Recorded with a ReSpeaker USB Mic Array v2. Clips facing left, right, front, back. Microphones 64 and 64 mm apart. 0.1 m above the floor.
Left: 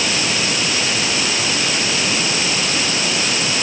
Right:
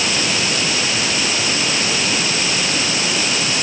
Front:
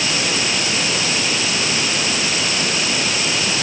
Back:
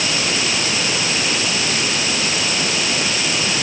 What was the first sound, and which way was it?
Only background noise.